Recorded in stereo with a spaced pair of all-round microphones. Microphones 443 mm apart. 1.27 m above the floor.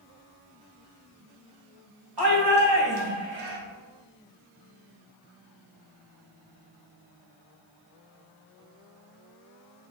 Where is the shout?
50° right (ahead or behind), 1.6 m; by 3.6 s 75° right (ahead or behind), 1.0 m.